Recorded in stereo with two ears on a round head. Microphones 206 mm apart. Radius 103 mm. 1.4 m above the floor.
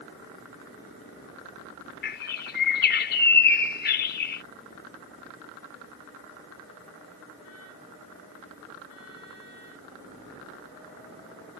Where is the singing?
No singing in this recording.